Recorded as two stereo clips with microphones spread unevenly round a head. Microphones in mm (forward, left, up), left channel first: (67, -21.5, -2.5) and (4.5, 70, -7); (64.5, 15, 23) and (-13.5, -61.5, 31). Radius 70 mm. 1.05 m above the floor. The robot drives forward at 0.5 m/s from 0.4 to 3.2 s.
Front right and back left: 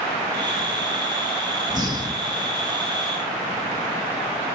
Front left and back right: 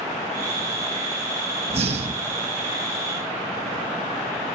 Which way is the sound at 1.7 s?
175° right.